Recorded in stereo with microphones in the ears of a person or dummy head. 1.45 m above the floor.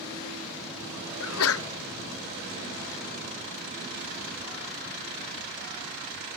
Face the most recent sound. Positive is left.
turn(degrees=75)  # may be behind; listen again after turning